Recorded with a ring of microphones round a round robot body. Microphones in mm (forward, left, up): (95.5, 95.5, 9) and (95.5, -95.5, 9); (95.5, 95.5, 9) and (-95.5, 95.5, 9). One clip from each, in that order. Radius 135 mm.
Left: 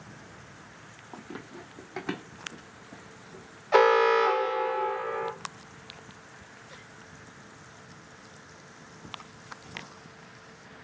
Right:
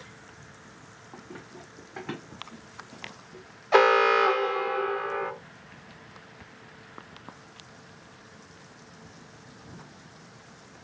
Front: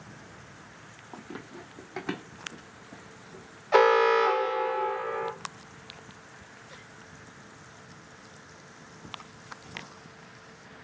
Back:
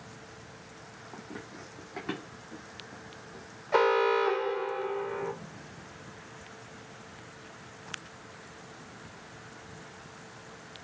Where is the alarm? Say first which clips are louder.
Right 1 dB, front 4 dB; 35° right, 0.6 m.